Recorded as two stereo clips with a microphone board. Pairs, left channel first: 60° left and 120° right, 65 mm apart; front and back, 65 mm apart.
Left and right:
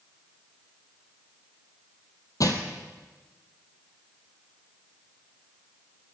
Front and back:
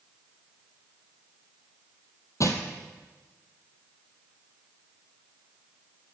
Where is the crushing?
35° left, 1.0 m.